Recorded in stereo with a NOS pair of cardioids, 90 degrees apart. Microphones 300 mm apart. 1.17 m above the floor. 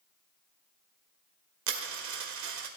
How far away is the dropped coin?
About 1.9 m.